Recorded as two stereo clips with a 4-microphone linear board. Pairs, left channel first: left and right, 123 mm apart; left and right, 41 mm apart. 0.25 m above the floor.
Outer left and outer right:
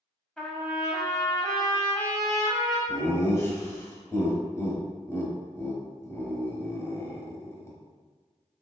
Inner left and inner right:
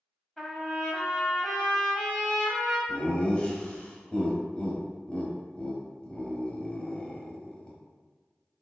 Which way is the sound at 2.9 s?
25° left (ahead or behind).